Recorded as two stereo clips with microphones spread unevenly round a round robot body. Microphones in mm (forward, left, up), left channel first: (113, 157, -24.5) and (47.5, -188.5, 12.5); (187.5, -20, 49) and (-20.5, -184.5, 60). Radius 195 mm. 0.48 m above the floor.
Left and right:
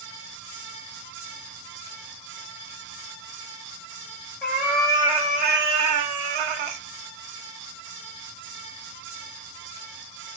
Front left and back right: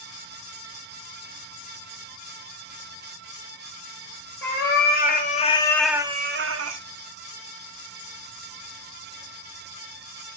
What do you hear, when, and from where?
4.4 s a cat meowing: 10° right, 1.2 m; by 6.8 s 110° right, 0.6 m